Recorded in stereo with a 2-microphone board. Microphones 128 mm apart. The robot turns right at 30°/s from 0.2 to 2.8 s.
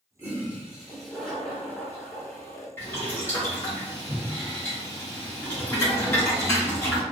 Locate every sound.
0.2 s a toilet flushing: 25° right, 1.1 m; by 2.7 s 50° left, 1.1 m
2.8 s boiling: 20° left (ahead or behind), 1.3 m